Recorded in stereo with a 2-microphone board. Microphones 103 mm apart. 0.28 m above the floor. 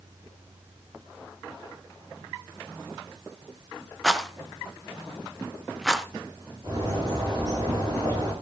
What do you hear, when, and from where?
4.0 s a rattle: centre (ahead or behind), 1.0 m
6.6 s a bird: 40° right (ahead or behind), 9 m